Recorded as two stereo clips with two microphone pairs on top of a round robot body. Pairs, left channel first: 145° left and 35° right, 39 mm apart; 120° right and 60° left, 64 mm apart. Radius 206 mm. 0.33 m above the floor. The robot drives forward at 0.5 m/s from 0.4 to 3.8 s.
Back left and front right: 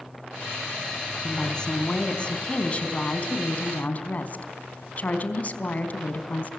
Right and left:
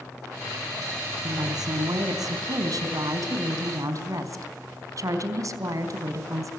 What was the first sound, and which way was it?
A woman speaking, 75° left.